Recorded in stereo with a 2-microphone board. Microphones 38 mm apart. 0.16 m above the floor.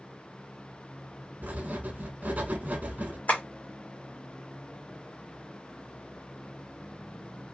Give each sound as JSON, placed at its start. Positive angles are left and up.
{"t": 1.4, "sound": "writing", "side_deg": -45, "distance_m": 0.7}
{"t": 3.3, "sound": "tapping", "side_deg": 50, "distance_m": 1.4}